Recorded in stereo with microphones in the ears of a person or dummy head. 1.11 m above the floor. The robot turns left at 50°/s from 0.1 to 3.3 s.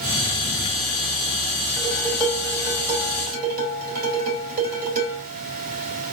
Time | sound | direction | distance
1.8 | dishes clattering | 25° left | 4.5 m